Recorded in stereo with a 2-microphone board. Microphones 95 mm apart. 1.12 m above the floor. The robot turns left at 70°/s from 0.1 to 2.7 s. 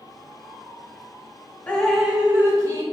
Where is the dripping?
20° left, 0.6 m; by 2.8 s 55° right, 0.6 m.